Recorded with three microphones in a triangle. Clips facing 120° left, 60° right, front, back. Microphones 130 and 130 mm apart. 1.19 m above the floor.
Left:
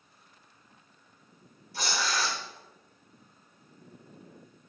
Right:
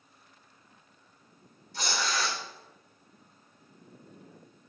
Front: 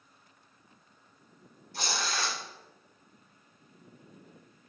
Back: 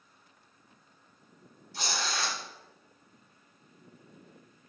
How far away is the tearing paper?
About 3 m.